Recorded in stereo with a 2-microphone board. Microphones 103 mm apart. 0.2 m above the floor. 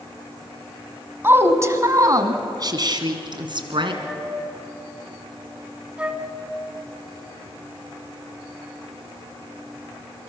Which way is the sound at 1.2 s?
25° right (ahead or behind).